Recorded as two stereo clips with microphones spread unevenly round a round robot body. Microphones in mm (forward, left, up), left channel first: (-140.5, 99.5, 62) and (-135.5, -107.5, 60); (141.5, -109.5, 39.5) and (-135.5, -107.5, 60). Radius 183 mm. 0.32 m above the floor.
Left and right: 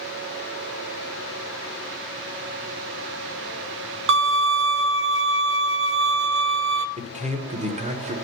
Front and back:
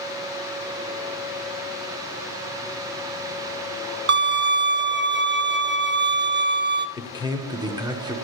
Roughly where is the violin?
Behind right.